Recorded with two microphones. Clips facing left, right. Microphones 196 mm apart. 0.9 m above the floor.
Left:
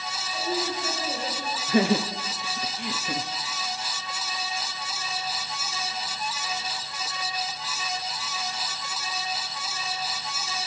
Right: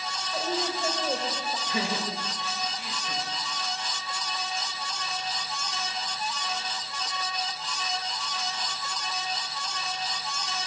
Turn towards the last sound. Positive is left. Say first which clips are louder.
# left 11 dB
turn(degrees=55)  # may be behind; listen again after turning